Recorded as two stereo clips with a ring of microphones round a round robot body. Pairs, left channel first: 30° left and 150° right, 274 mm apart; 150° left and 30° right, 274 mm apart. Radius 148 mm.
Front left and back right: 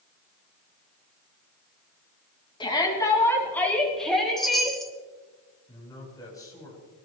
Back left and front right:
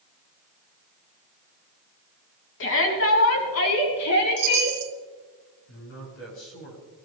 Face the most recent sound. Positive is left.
turn(degrees=105)